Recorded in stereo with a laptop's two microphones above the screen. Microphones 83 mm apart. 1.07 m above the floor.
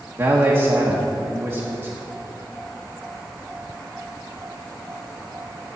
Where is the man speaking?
35° right (ahead or behind), 1.3 m.